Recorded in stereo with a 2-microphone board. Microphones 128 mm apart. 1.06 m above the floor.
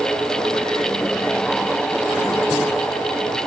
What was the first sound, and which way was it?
Only background noise.